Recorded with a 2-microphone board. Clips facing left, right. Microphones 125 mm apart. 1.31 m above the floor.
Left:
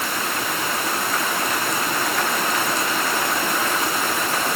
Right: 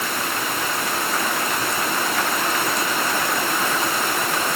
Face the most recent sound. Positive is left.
No sound to turn to.